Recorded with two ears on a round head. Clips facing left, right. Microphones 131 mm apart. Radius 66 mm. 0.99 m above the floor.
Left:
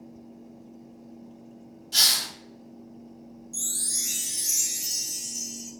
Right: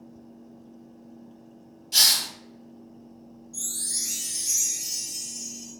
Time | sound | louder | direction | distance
1.9 | a hiss | right 1 dB | 15° right (ahead or behind) | 0.9 m
3.5 | a chime | left 1 dB | 65° left (ahead or behind) | 0.9 m